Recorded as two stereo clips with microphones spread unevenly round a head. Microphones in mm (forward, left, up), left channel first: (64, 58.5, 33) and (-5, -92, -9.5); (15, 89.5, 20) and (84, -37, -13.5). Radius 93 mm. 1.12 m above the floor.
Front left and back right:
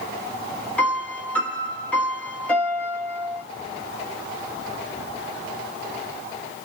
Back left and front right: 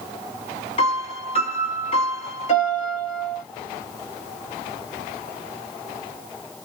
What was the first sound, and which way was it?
A piano, 135° left.